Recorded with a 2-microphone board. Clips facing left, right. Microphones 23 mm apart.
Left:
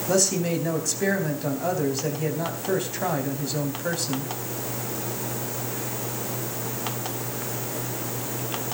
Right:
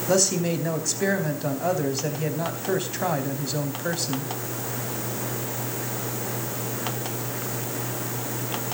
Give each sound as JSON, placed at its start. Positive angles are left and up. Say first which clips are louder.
{"t": 0.1, "sound": "a man speaking", "louder": "right 1 dB", "side_deg": -5, "distance_m": 3.5}